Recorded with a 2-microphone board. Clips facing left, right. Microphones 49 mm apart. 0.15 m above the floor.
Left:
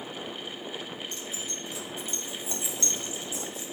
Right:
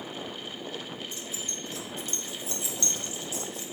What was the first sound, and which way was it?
Keys jangling, 5° right (ahead or behind).